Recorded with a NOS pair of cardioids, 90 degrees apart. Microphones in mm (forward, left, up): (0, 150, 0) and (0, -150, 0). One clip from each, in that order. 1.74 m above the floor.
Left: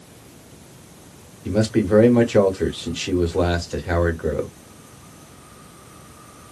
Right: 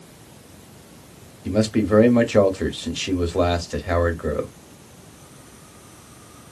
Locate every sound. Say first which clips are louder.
1.4 s a man speaking: left 1 dB; 5° right, 0.9 m